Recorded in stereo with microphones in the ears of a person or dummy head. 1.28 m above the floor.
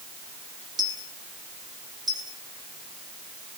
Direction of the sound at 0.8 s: 25° right (ahead or behind).